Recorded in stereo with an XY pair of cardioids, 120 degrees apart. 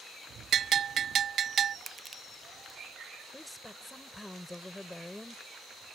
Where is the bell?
50° right.